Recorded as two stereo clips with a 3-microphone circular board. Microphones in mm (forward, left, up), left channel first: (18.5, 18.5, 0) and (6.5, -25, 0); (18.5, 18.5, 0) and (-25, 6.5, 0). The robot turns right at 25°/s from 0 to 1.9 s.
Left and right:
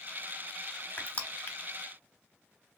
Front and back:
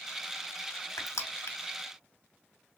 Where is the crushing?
15° left, 0.7 m; by 1.6 s 30° left, 0.7 m.